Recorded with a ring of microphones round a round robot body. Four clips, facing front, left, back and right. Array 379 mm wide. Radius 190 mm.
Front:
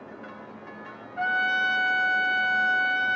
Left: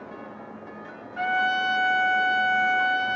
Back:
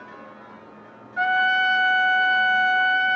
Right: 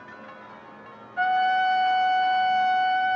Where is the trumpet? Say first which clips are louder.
Right 3 dB, back 5 dB; 145° left, 2.5 m.